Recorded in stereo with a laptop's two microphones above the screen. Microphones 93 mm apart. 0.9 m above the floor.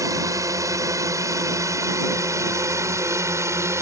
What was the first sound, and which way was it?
A drone, 40° right (ahead or behind).